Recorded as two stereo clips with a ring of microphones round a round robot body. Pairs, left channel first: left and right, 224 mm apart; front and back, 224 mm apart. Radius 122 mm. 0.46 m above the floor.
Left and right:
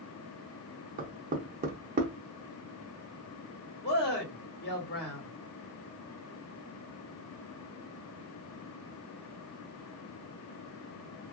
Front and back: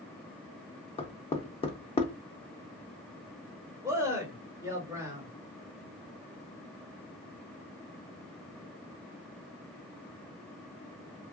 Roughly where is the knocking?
Ahead right.